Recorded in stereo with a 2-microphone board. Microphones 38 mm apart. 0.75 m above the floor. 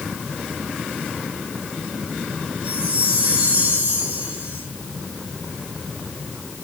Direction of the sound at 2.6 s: 30° right (ahead or behind).